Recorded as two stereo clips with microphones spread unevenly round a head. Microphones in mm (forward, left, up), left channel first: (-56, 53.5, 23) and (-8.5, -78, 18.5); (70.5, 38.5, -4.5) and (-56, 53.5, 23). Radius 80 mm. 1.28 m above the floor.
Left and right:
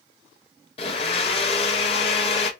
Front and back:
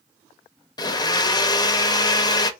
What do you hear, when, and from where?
0.8 s a blender: 55° left, 0.5 m